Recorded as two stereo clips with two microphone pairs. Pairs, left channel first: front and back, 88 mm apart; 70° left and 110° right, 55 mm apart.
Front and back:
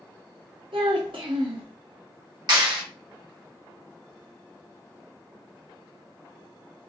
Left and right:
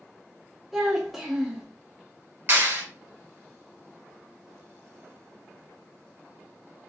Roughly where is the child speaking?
Behind.